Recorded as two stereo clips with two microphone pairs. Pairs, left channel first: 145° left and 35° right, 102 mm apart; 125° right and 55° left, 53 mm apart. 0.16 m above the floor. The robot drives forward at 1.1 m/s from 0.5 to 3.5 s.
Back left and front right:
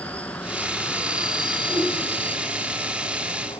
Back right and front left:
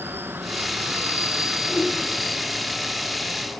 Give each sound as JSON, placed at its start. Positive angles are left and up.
{"t": 0.0, "sound": "an insect", "azimuth_deg": 70, "distance_m": 1.7}
{"t": 1.7, "sound": "a whoosh", "azimuth_deg": -95, "distance_m": 9.5}